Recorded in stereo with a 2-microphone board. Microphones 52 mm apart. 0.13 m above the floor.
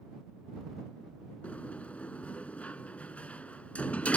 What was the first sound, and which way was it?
A sliding door, 30° left (ahead or behind).